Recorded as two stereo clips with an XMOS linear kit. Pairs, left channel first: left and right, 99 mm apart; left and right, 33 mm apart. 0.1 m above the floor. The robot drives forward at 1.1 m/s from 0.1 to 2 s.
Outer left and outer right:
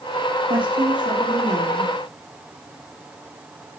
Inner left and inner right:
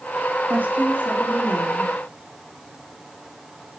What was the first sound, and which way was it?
A woman speaking, 60° right (ahead or behind).